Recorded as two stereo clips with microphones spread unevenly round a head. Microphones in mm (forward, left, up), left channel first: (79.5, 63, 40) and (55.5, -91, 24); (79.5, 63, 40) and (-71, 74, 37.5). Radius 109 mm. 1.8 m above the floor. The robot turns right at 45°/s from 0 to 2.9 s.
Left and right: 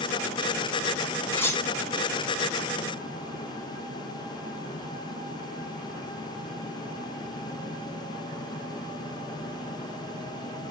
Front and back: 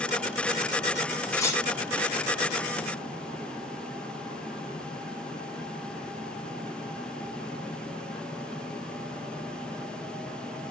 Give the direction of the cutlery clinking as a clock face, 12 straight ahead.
11 o'clock.